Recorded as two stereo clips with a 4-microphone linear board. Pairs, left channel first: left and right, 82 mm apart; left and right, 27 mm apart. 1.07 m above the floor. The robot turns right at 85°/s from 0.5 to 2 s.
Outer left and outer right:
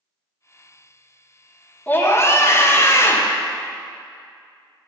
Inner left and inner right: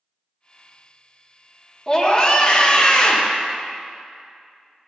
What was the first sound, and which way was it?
A scream, 20° left (ahead or behind).